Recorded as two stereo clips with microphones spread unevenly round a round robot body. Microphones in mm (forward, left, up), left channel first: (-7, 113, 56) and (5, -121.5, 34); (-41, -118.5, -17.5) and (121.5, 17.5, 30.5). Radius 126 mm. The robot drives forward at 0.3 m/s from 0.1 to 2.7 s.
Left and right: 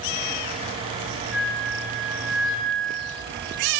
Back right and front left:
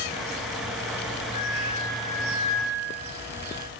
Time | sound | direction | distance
1.3 | a flute | 175° right | 4 m